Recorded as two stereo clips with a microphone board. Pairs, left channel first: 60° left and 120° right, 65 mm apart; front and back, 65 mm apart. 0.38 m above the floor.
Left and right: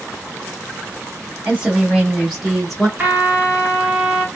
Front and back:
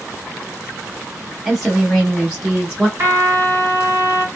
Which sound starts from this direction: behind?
A trumpet, at 3.0 s.